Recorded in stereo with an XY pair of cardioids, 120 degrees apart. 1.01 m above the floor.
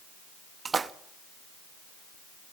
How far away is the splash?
About 0.9 m.